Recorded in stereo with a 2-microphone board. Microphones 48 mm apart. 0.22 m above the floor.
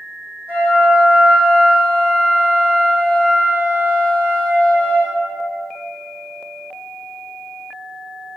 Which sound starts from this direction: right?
A flute, at 0.5 s.